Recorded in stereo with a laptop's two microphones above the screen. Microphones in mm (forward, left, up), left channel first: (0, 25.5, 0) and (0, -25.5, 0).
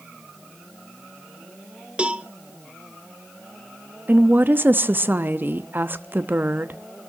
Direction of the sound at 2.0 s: 25° right (ahead or behind).